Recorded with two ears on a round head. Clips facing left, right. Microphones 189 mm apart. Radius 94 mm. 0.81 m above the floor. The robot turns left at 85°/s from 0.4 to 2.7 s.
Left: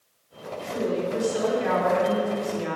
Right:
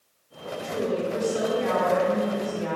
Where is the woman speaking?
155° right, 2.5 m; by 2.8 s 30° left, 2.5 m.